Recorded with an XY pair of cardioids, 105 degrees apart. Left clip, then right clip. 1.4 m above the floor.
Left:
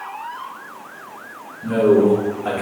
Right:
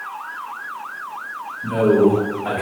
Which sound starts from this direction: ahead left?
A man speaking, at 1.6 s.